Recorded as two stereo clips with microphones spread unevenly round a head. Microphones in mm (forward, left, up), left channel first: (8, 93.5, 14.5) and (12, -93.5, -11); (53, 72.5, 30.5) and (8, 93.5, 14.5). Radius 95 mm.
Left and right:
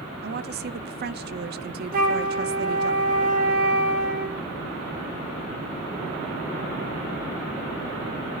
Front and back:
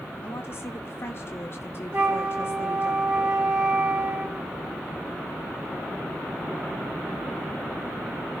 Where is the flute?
135° right, 2.5 m.